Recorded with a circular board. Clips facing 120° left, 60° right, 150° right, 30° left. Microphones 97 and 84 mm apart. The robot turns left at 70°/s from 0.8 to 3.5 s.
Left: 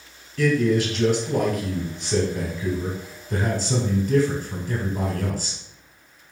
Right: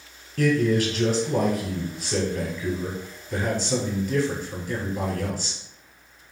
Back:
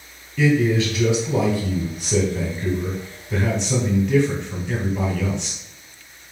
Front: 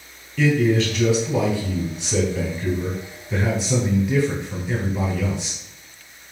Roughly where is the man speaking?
Ahead right.